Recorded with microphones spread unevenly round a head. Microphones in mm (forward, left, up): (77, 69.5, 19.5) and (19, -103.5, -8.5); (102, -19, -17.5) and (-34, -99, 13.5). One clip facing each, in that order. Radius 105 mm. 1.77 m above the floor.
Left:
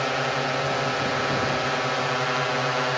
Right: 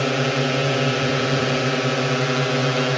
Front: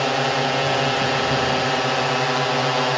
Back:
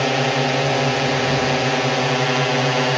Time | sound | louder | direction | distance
0.0 | a drone | right 5 dB, back 2 dB | 80° right | ?